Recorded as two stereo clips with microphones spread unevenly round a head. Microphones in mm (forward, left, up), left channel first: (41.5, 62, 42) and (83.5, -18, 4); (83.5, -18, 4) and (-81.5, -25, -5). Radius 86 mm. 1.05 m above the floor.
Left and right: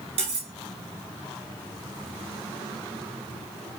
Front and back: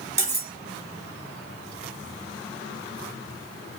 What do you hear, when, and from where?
0.2 s cutlery clinking: 105° right, 1.3 m